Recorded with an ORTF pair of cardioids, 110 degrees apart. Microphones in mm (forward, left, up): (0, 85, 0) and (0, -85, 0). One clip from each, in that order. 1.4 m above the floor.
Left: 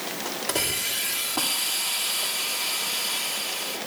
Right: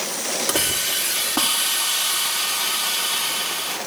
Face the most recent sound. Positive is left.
turn(degrees=-45)